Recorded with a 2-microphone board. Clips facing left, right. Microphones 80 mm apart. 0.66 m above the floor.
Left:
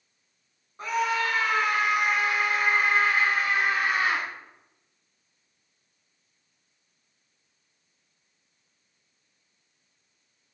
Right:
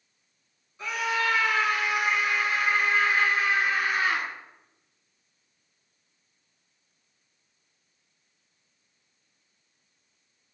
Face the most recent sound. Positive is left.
turn(degrees=65)  # may be behind; listen again after turning